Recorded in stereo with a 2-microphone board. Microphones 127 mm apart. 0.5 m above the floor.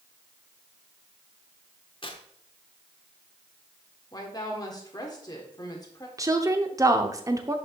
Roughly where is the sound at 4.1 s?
Left.